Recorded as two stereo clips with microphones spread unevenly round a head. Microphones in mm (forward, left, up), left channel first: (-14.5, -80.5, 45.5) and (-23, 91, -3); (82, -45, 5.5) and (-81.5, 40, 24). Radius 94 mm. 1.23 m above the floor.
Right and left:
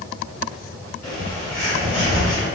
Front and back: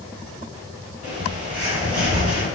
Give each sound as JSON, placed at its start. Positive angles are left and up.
{"t": 1.0, "sound": "a bird", "azimuth_deg": -160, "distance_m": 1.8}